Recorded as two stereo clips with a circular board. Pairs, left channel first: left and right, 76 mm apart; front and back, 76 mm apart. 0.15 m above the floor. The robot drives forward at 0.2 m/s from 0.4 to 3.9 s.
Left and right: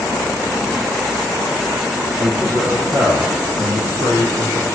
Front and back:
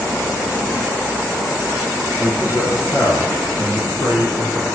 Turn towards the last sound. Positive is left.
turn(degrees=-50)